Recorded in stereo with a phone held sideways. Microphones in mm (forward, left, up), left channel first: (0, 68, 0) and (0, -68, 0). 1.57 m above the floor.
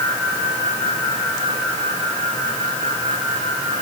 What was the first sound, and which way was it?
Only background noise.